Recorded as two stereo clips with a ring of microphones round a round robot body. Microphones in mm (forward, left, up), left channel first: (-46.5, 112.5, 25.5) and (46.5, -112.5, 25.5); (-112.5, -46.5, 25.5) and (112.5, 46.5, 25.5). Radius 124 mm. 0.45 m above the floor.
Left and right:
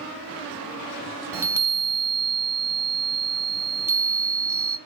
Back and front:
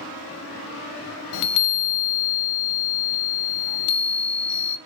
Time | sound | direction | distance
1.3 | a chime | 150° right | 0.7 m